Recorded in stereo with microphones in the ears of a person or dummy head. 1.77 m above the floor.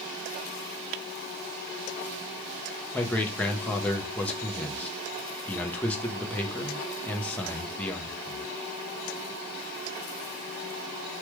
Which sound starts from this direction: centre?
A man speaking, at 2.9 s.